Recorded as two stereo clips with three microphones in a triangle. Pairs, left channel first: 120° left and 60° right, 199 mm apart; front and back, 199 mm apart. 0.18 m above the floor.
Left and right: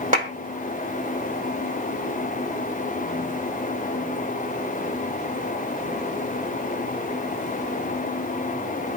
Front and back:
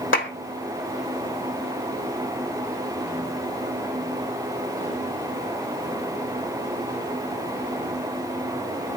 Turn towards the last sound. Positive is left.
turn(degrees=-10)